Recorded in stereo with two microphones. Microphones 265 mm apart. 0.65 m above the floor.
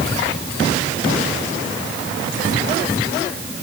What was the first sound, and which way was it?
Only background noise.